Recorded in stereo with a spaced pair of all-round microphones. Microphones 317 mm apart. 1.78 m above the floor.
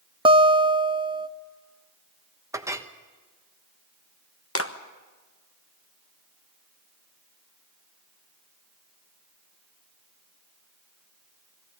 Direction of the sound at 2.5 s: 10° right (ahead or behind).